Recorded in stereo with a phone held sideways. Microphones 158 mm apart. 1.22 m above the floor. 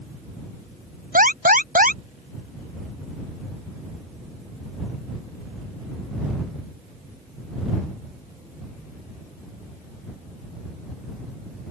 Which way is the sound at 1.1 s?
65° right (ahead or behind).